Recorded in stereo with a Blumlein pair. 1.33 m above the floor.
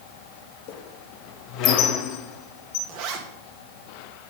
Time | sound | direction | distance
0.7 | a squeak | 40° left | 0.8 m
2.9 | a zipper | 45° right | 1.2 m